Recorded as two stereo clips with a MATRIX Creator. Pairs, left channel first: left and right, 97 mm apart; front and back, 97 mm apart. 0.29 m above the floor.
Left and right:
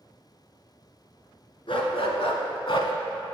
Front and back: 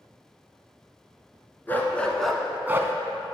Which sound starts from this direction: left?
A dog barking, at 1.7 s.